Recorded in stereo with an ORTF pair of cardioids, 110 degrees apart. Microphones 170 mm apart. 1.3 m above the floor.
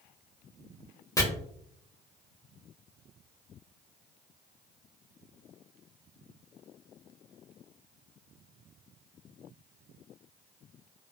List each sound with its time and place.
1.2 s chopping: 20° left, 0.9 m